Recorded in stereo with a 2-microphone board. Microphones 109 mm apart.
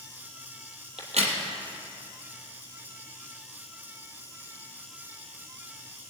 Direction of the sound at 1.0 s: 75° right (ahead or behind).